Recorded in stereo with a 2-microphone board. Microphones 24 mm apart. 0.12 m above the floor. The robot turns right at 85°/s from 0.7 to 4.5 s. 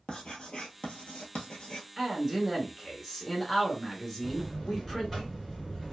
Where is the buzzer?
Centre (ahead or behind), 2 m; by 5.9 s 15° left (ahead or behind), 2 m.